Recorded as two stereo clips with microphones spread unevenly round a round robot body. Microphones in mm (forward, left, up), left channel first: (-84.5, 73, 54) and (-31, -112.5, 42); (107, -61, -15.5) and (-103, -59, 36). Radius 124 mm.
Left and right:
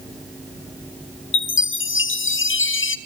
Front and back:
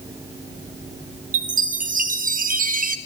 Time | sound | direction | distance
1.3 | a chime | 115° left | 0.7 m